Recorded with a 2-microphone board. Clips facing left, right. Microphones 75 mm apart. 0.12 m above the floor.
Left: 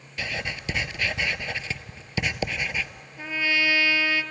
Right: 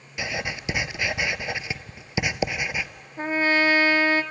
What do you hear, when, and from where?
0.2 s writing: 15° right (ahead or behind), 0.5 m
3.2 s a trumpet: 40° right (ahead or behind), 0.5 m